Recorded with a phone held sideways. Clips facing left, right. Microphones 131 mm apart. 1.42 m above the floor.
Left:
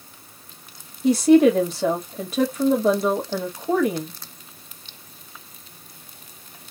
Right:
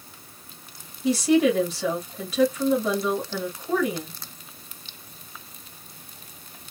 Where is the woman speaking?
45° left (ahead or behind), 1.7 m.